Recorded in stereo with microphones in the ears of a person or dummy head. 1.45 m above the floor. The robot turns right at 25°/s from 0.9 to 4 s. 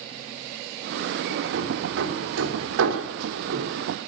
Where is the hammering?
60° right (ahead or behind), 2.5 m.